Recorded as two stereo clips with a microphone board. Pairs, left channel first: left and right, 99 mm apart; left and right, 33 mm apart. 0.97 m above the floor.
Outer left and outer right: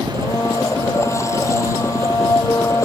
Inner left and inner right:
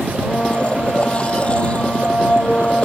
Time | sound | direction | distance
0.1 | a blender | 30° left (ahead or behind) | ?